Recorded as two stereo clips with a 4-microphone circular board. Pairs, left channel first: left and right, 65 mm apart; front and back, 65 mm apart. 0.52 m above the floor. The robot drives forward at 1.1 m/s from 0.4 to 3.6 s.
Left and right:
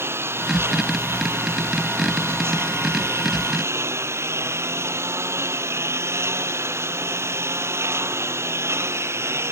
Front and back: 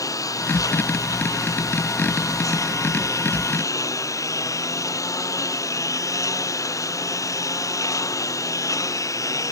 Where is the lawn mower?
35° right.